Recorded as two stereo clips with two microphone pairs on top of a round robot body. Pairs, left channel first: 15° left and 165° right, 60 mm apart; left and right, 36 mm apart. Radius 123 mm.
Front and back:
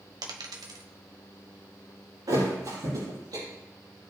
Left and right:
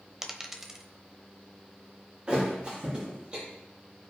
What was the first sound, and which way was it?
A dropped coin, 170° right.